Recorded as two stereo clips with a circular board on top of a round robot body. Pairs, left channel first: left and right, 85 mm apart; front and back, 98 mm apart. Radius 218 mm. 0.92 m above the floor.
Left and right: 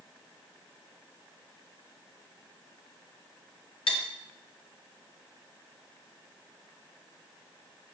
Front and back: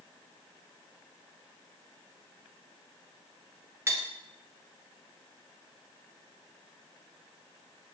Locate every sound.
3.9 s cutlery clinking: 115° left, 0.6 m